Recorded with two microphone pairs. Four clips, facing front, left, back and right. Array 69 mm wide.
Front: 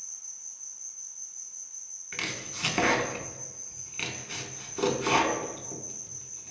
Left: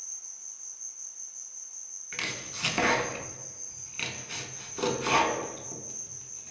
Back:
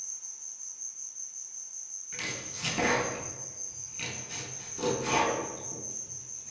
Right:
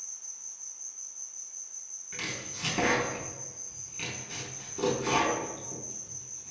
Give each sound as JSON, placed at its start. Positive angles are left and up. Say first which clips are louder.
{"t": 0.0, "sound": "an insect", "louder": "even, back 1 dB", "azimuth_deg": -175, "distance_m": 1.3}
{"t": 2.1, "sound": "chopping", "louder": "left 2 dB, front 3 dB", "azimuth_deg": 45, "distance_m": 0.5}